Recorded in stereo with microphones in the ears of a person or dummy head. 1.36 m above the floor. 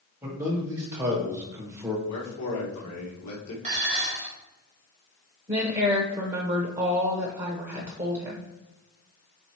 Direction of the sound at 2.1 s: 80° left.